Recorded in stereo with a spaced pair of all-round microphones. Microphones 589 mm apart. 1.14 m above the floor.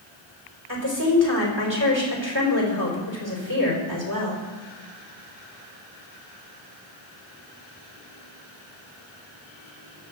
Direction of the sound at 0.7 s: 50° right (ahead or behind).